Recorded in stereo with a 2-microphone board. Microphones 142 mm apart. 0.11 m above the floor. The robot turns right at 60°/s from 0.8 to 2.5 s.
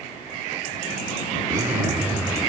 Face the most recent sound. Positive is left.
turn(degrees=0)  # may be behind; listen again after turning